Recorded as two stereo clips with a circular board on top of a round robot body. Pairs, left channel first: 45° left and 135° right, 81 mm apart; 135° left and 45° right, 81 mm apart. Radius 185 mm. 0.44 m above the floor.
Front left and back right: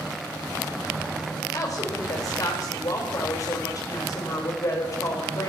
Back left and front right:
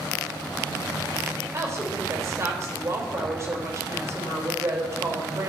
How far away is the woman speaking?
About 3.5 m.